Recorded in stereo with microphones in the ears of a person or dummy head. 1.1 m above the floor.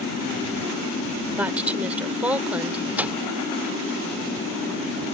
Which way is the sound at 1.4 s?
10° right (ahead or behind).